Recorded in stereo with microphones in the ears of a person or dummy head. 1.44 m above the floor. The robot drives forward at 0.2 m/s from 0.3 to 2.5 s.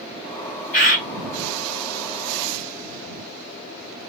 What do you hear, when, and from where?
0.7 s a bird: 50° left (ahead or behind), 1.8 m